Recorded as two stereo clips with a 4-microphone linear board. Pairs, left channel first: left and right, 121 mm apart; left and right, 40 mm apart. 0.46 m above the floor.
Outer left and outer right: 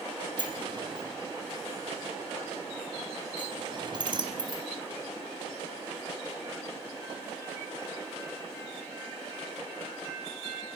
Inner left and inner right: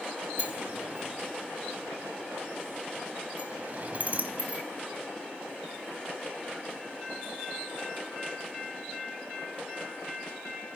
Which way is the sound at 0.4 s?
40° right (ahead or behind).